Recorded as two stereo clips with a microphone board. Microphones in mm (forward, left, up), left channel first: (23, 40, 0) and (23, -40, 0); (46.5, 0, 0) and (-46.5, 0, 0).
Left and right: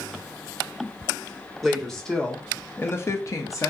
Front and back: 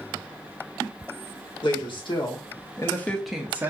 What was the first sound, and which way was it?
A woman speaking, straight ahead.